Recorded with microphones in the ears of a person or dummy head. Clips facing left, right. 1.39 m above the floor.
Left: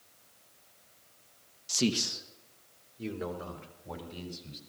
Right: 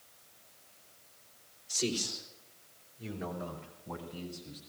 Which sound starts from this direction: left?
A man speaking, at 1.7 s.